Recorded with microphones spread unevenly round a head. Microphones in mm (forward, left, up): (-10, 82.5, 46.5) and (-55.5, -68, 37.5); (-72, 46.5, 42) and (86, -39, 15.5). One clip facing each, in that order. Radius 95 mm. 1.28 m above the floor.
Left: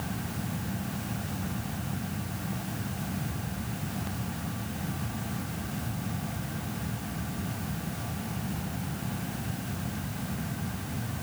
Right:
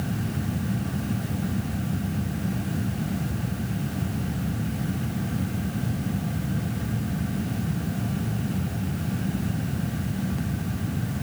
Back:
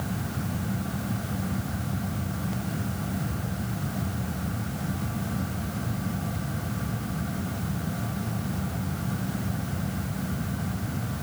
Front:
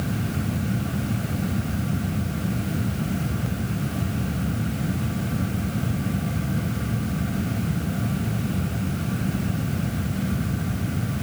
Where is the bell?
No bell in this recording.